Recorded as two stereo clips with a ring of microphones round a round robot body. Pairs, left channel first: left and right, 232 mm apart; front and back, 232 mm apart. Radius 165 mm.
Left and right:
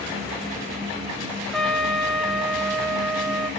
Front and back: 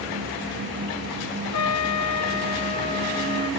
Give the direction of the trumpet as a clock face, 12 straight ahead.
12 o'clock.